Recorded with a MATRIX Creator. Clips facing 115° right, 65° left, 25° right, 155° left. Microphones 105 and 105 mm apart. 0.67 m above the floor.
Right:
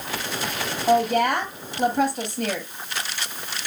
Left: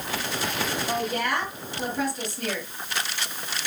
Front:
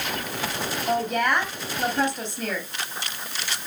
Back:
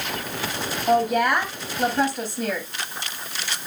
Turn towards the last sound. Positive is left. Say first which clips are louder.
# right 11 dB, back 4 dB
turn(degrees=-135)